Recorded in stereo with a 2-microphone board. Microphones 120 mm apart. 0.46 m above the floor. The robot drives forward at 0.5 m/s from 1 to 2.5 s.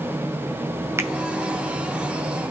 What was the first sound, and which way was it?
A finger snap, 20° right (ahead or behind).